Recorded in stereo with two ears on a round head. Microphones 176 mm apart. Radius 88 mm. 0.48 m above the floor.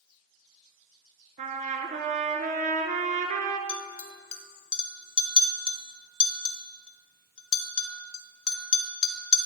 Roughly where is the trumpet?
Right.